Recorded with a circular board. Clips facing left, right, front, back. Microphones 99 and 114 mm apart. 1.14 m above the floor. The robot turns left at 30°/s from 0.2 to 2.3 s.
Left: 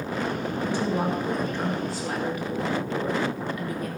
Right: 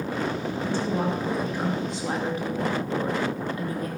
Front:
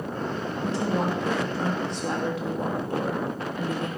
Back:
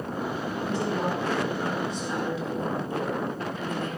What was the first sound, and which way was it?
A woman speaking, 20° left.